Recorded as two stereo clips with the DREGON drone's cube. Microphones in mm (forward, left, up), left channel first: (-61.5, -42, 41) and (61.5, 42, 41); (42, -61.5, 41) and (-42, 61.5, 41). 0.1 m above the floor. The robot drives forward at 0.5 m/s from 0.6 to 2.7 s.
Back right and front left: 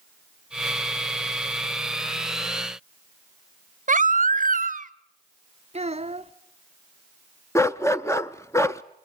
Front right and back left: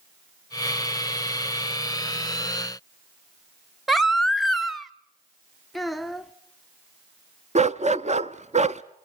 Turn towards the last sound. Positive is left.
turn(degrees=150)